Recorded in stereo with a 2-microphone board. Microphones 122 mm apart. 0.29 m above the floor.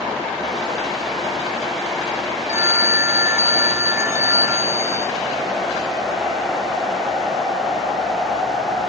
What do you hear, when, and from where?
2.5 s a phone ringing: 20° right (ahead or behind)